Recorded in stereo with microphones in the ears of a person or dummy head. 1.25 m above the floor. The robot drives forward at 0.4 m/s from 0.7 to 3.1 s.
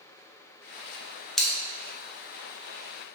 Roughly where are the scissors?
Centre.